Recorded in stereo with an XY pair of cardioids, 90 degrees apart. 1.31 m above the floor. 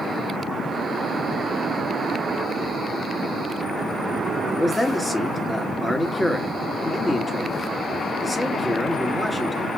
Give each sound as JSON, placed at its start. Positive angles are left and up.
{"t": 4.5, "sound": "a man speaking", "azimuth_deg": 10, "distance_m": 1.8}